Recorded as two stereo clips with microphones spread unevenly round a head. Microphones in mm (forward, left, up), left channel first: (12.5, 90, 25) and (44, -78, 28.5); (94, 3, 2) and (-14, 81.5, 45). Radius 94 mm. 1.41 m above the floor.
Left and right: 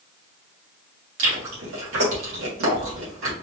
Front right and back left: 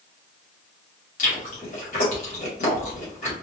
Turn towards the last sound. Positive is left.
turn(degrees=-80)